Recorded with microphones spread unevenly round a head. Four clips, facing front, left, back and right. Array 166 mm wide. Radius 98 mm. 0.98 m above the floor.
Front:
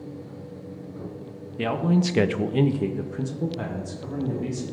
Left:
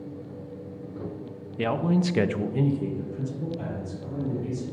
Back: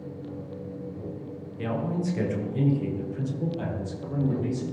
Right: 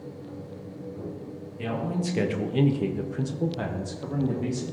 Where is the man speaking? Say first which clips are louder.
Left 5 dB, front 6 dB; 40° left, 0.7 m; by 4.7 s 70° right, 1.6 m.